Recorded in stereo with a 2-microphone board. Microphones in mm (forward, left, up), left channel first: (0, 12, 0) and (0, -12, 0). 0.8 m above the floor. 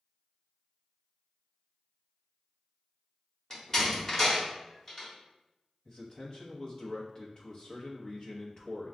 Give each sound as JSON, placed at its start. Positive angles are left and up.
{"t": 3.5, "sound": "a door slam", "side_deg": 25, "distance_m": 1.6}
{"t": 5.8, "sound": "a man speaking", "side_deg": 45, "distance_m": 1.0}